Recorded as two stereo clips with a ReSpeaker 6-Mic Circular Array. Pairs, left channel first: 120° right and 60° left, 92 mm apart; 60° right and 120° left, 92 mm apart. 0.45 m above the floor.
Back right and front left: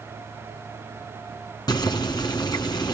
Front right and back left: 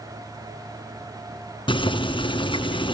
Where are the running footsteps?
No running footsteps in this recording.